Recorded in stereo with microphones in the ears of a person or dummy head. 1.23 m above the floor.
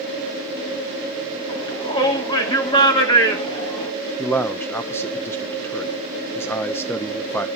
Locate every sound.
1.5 s a shout: 30° left (ahead or behind), 2.5 m
4.2 s a man speaking: 10° left (ahead or behind), 1.1 m